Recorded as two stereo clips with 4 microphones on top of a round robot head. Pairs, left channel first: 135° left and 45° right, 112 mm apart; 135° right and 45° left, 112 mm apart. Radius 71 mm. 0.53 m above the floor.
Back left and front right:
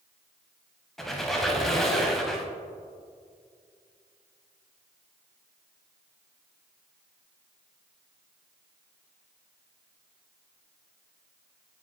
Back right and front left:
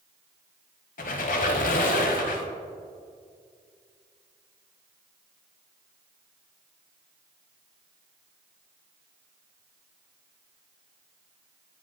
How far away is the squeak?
About 0.7 m.